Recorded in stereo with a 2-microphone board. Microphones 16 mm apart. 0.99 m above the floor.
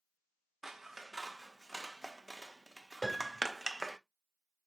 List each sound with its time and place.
0.6 s scissors: 20° right (ahead or behind), 0.5 m
3.0 s a piano: 20° left (ahead or behind), 1.1 m